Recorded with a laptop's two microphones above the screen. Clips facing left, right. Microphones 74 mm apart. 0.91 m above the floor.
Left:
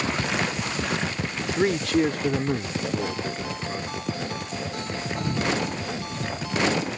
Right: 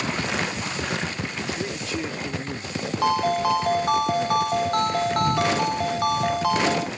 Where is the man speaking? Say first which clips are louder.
Left 13 dB; 80° left; by 4.0 s 5° left (ahead or behind).